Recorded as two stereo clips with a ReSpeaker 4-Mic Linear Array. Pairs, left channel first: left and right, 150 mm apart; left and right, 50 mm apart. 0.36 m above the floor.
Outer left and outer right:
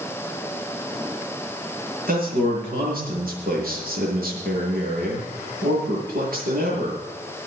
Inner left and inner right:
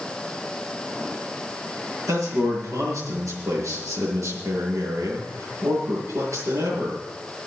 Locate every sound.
2.1 s a man speaking: 70° right (ahead or behind), 7 m